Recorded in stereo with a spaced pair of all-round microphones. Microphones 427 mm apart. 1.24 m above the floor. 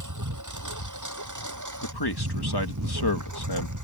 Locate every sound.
0.0 s a lawn mower: 45° right (ahead or behind)
1.8 s a man speaking: 60° left (ahead or behind)